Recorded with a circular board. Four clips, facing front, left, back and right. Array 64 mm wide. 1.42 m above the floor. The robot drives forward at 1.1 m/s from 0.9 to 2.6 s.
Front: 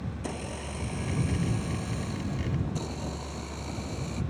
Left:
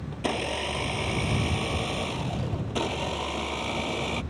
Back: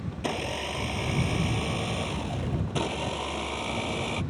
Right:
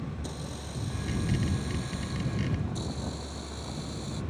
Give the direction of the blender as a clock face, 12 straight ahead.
8 o'clock.